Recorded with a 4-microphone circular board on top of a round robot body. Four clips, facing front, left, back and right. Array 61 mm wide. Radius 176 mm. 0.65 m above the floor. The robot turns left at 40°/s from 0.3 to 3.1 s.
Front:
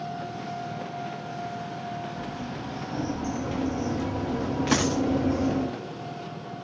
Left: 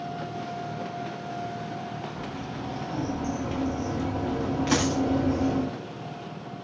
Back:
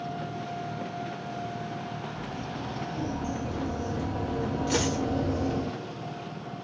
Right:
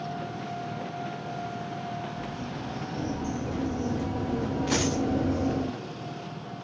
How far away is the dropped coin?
About 6.5 m.